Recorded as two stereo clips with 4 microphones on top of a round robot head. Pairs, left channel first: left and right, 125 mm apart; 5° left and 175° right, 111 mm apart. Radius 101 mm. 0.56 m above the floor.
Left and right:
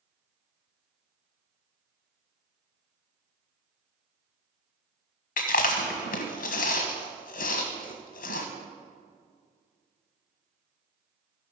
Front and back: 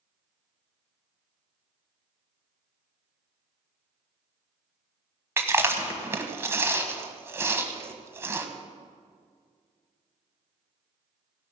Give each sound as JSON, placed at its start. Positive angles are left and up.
{"t": 5.4, "sound": "chewing", "azimuth_deg": 115, "distance_m": 1.3}